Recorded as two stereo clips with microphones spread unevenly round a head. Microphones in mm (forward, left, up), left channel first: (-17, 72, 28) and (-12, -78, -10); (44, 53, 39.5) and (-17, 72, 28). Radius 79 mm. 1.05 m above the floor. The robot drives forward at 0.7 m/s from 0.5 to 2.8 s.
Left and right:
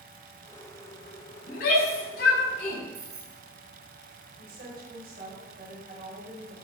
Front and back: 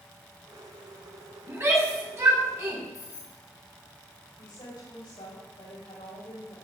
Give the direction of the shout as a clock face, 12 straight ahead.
8 o'clock.